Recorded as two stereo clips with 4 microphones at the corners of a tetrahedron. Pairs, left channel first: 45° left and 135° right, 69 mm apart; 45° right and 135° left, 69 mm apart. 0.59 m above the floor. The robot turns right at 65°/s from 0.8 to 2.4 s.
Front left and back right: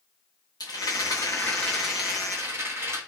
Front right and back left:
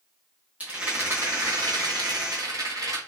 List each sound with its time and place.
0.6 s a rattle: 65° left, 1.0 m; by 3.0 s 170° left, 1.0 m